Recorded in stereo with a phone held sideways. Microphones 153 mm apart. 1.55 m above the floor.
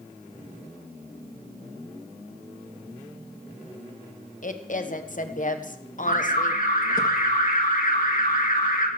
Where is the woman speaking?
60° left (ahead or behind), 1.0 m.